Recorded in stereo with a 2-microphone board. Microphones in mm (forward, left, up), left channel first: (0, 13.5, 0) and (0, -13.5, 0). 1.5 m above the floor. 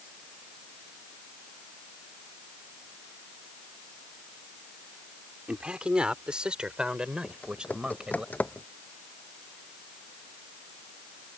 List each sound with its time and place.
5.5 s a man speaking: 40° right (ahead or behind); by 8.2 s 30° right (ahead or behind)
7.2 s typing on a keyboard: 85° left